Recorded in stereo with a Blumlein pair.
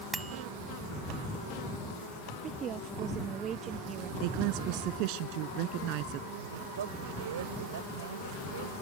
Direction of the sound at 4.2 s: 45° right.